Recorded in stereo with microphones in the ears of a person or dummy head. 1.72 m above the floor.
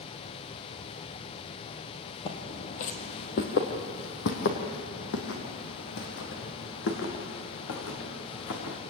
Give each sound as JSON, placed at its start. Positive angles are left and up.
{"t": 0.0, "sound": "a fan", "side_deg": 30, "distance_m": 1.2}
{"t": 2.2, "sound": "footsteps", "side_deg": 30, "distance_m": 2.0}